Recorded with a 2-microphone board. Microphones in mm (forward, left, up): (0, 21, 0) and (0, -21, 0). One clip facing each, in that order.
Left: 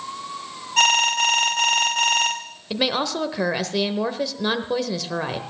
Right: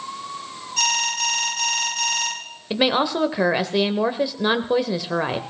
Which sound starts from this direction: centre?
A woman speaking, at 2.7 s.